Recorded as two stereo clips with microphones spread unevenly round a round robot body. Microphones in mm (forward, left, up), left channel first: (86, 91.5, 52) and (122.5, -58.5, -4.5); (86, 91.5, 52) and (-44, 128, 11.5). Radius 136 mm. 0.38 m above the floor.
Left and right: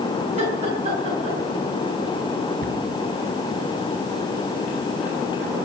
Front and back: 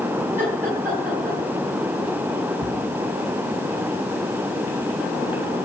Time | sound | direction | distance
0.4 | laughter | 120° right | 4.5 m
2.6 | a cupboard door | 60° right | 3.5 m